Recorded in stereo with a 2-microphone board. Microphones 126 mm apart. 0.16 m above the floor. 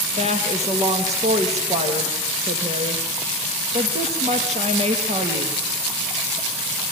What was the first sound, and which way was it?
A woman speaking, 60° right (ahead or behind).